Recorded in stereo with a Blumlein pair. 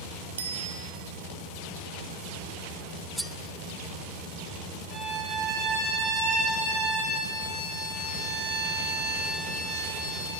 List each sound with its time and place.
0.4 s a bicycle bell: 65° right, 2.5 m
3.2 s cutlery clinking: 5° right, 0.6 m
4.9 s a violin: 35° right, 8 m